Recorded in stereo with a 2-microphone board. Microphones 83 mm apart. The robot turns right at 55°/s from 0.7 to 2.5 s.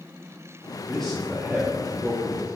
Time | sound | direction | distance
0.8 | a man speaking | 165° left | 1.5 m